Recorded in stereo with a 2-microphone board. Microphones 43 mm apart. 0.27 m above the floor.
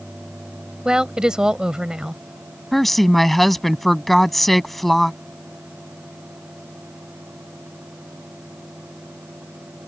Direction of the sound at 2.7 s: 5° left (ahead or behind).